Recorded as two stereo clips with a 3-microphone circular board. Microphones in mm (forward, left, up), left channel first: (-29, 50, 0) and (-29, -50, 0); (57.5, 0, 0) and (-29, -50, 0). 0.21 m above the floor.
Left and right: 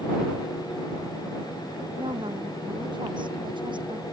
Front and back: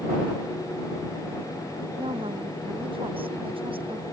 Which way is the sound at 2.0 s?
125° right.